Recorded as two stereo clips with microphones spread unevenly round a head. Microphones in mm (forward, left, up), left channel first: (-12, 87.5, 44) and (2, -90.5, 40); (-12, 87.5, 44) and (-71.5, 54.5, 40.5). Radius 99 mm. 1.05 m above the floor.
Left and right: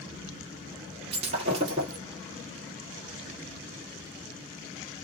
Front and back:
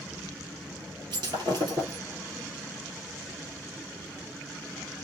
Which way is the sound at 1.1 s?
140° right.